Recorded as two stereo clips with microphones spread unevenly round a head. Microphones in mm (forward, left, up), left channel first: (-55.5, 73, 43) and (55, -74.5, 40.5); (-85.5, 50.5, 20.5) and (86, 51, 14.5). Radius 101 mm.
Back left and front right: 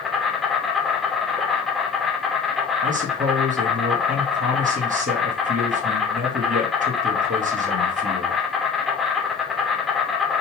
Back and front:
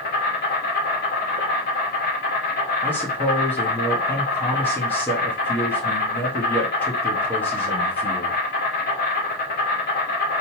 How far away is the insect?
About 2.5 m.